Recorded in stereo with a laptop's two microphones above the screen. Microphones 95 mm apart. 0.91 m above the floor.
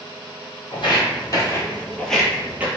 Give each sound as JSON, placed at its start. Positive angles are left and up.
{"t": 0.7, "sound": "footsteps", "side_deg": 50, "distance_m": 1.4}